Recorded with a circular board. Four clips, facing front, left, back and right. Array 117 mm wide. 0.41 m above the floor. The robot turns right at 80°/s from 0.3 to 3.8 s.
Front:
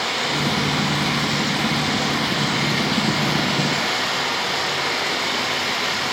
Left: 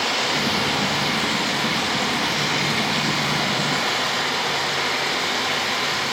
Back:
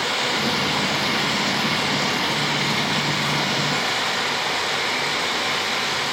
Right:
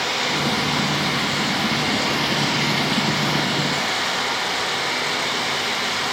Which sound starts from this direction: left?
Running water, at 0.0 s.